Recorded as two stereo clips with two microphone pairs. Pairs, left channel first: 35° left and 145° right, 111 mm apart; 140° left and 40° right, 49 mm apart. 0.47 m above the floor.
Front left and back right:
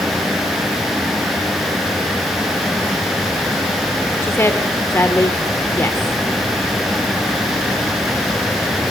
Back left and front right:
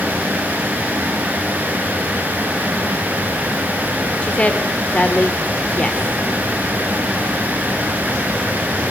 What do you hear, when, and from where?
4.2 s a woman speaking: 90° left, 1.6 m